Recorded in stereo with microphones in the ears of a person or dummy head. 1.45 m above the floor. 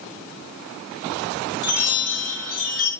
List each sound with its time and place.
1.6 s a chime: 60° left (ahead or behind), 2.5 m